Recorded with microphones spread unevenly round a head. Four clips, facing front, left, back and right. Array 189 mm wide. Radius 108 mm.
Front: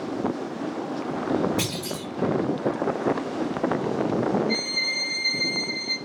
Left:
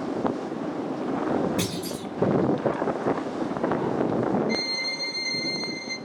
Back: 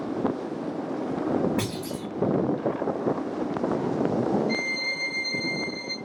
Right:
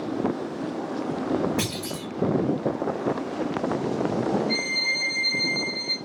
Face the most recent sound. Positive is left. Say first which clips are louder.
# even, front 1 dB
turn(degrees=150)